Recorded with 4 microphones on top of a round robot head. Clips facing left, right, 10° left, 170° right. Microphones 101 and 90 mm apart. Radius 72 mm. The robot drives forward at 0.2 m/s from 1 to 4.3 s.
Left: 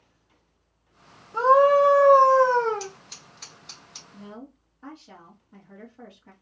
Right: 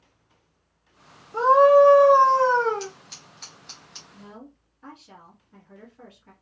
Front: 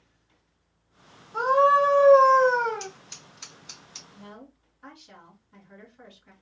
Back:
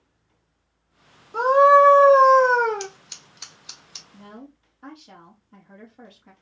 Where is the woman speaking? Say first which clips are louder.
Left 3 dB, back 4 dB; 155° left, 2.5 m.